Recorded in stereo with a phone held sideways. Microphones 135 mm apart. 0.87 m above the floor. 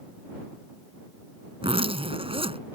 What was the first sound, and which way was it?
A zipper, 45° right (ahead or behind).